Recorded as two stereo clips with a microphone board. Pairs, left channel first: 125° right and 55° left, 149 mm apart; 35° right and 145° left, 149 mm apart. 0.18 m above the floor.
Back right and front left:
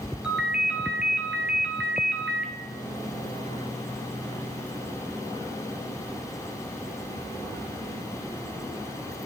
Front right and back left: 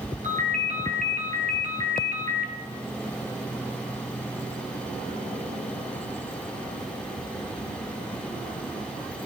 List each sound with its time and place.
0.2 s a ringtone: 140° left, 1.6 m